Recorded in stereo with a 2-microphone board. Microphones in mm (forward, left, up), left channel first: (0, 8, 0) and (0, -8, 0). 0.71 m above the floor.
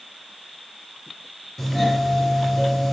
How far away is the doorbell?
About 3.5 m.